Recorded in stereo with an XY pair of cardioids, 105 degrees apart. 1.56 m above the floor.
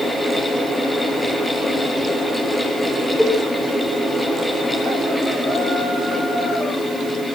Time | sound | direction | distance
0.0 | a fan | 10° left | 7.5 m
3.2 | a cowbell | straight ahead | 3.5 m